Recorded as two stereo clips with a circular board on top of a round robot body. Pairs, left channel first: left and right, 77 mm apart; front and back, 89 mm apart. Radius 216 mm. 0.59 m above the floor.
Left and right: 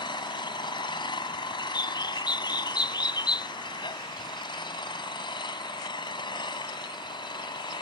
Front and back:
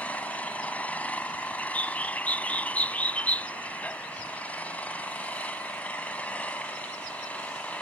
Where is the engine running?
75° left.